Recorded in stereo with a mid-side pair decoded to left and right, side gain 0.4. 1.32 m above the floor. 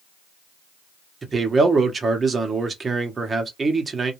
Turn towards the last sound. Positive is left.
turn(degrees=-40)